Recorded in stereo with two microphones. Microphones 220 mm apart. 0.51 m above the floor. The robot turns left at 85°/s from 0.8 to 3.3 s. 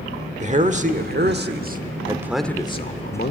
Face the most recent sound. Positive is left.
turn(degrees=100)